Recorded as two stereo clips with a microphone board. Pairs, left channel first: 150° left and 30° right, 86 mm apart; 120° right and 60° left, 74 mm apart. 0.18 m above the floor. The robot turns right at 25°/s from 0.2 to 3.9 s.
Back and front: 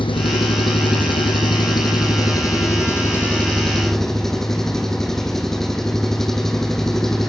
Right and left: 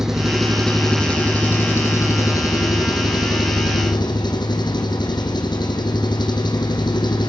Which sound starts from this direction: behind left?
An engine running, at 0.0 s.